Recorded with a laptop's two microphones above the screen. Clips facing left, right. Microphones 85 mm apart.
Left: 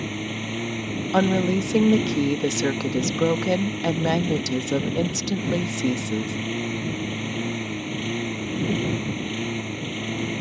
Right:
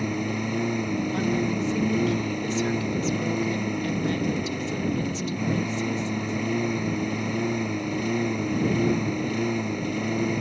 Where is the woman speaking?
70° left (ahead or behind).